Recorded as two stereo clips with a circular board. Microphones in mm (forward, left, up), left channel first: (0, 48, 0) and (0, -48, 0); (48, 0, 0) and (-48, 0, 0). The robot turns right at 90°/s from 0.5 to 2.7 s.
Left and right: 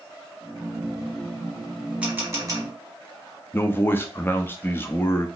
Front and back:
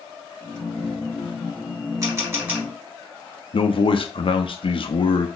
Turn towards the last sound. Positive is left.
turn(degrees=25)